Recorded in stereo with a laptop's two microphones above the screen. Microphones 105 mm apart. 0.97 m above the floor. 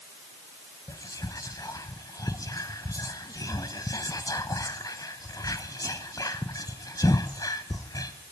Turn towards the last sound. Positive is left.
turn(degrees=35)  # may be behind; listen again after turning